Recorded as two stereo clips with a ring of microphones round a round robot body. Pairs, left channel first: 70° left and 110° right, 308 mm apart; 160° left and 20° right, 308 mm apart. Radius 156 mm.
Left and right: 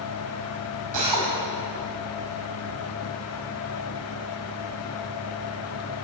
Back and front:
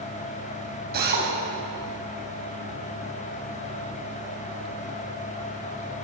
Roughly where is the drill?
Right.